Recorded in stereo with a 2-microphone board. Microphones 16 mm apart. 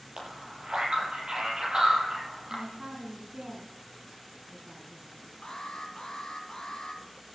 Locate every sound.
0.2 s a man speaking: 50° right (ahead or behind), 6.5 m
2.5 s a man speaking: 60° right (ahead or behind), 2.5 m
5.4 s an alarm: 40° left (ahead or behind), 3.5 m